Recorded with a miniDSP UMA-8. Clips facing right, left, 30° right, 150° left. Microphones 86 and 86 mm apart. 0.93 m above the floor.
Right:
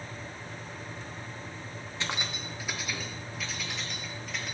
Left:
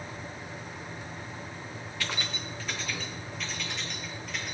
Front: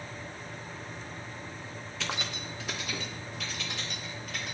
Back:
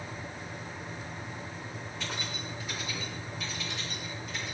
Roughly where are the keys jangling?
Ahead.